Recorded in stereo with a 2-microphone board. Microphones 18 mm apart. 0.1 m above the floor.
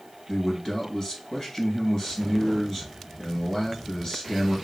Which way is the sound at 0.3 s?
30° left (ahead or behind).